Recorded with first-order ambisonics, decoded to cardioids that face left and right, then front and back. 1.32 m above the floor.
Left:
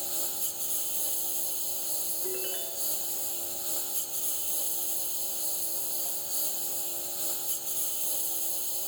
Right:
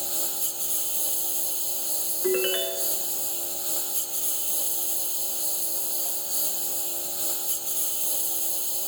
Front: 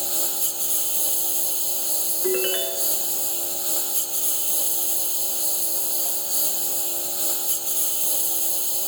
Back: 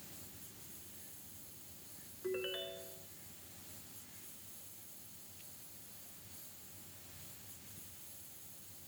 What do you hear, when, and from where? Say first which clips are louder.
0.0 s a lawn mower: right 4 dB, front 28 dB; 15° right
2.2 s a ringtone: right 15 dB, front 15 dB; 45° right